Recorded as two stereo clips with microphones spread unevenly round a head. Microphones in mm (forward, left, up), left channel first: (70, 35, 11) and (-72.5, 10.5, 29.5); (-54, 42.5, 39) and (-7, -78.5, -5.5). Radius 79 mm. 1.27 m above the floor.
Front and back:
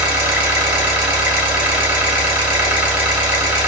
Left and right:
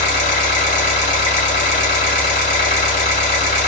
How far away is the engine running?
About 2.5 m.